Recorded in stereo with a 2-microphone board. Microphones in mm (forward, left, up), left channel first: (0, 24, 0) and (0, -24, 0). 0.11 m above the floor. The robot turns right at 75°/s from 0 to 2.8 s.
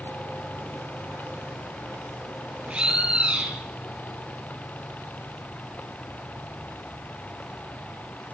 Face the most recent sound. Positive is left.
turn(degrees=-20)  # may be behind; listen again after turning